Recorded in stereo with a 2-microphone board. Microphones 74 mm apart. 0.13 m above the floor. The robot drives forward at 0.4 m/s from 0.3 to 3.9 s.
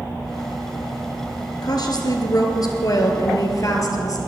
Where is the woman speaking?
60° left (ahead or behind), 2 m; by 4.2 s 50° left (ahead or behind), 2.5 m.